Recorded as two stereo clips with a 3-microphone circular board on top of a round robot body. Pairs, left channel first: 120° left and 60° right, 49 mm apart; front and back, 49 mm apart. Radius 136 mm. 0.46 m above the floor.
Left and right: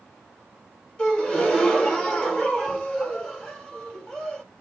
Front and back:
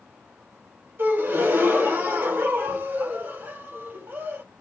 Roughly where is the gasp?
Behind.